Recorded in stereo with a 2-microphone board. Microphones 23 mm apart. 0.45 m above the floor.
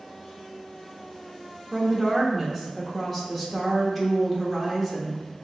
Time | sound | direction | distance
1.7 | a woman speaking | 5° left (ahead or behind) | 1.0 m